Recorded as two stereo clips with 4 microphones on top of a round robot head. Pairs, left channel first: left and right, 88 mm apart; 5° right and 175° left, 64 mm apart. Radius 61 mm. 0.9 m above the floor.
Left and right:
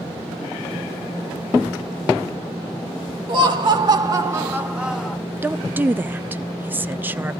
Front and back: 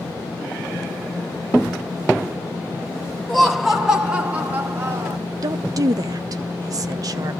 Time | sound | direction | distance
3.3 | laughter | 95° right | 1.7 m
5.4 | a woman speaking | 160° right | 0.7 m